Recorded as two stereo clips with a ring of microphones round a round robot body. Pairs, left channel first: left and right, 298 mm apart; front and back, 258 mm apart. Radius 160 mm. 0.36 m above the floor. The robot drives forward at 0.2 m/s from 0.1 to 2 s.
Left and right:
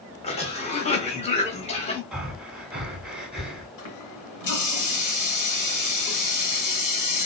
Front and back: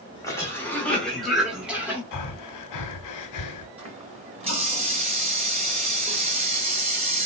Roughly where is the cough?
Ahead left.